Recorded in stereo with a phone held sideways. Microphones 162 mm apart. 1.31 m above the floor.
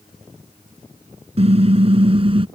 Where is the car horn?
40° right (ahead or behind); by 2.5 s 35° right (ahead or behind).